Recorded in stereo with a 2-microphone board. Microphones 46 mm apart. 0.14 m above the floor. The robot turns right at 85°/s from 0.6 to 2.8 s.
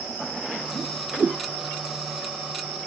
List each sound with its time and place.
0.8 s a whoosh: 10° left (ahead or behind); by 1.4 s 45° right (ahead or behind)